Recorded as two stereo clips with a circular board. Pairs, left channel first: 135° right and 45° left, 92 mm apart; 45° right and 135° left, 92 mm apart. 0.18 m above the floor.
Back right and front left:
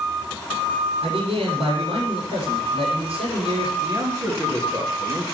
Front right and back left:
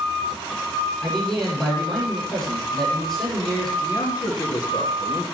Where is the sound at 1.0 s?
40° left, 8 m.